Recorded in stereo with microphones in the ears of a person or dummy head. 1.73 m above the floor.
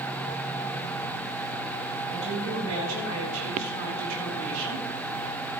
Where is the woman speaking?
85° right, 8 m.